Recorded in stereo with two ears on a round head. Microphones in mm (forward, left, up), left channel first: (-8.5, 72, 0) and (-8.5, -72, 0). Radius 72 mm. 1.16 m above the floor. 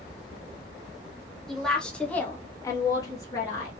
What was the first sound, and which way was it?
A woman speaking, centre (ahead or behind).